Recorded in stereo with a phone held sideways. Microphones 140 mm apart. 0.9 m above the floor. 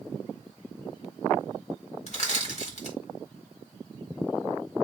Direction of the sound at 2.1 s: 55° left (ahead or behind).